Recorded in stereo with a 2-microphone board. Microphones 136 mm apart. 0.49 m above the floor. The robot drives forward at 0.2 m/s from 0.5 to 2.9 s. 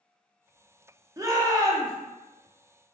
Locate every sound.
1.2 s a shout: 25° right (ahead or behind), 0.7 m